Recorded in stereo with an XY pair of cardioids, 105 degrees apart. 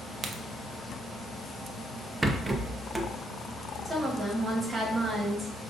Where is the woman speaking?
25° right, 1.4 m.